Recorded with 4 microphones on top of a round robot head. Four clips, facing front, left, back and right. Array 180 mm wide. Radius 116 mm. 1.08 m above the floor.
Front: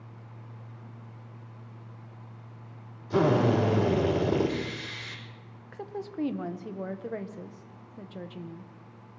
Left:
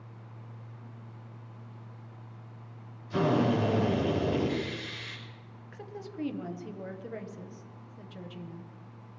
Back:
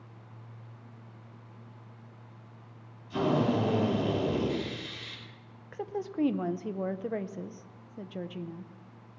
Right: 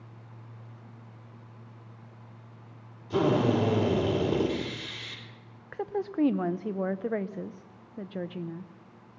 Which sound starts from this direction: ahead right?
A drill, at 3.1 s.